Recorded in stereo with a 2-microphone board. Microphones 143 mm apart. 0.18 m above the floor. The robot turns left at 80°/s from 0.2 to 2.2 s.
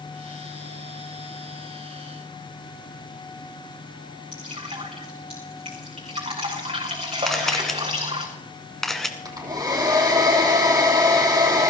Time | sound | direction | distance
4.3 | dripping | 40° right (ahead or behind) | 5 m
7.3 | a camera shutter | centre (ahead or behind) | 1.6 m
9.2 | a hair dryer | 25° right (ahead or behind) | 3 m